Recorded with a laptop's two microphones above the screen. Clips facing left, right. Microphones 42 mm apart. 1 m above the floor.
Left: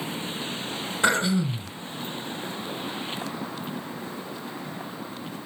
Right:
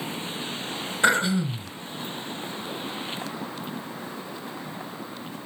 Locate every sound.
1.0 s throat clearing: centre (ahead or behind), 1.8 m